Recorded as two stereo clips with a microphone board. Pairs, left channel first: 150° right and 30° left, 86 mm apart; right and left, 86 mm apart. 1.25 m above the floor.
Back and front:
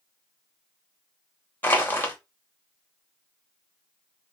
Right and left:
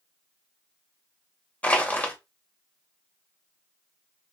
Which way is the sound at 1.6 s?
140° right.